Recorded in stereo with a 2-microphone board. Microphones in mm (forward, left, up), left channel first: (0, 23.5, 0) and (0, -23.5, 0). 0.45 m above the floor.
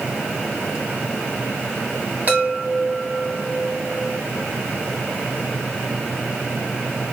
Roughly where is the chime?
Right.